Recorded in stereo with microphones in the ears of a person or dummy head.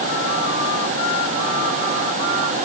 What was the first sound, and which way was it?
Only background noise.